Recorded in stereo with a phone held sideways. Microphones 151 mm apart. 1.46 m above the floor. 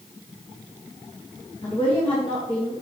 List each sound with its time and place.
1.6 s a woman speaking: 35° left (ahead or behind), 1.6 m